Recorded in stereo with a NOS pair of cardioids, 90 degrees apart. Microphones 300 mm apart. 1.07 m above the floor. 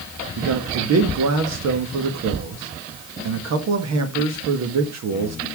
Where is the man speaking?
60° right, 1.6 m.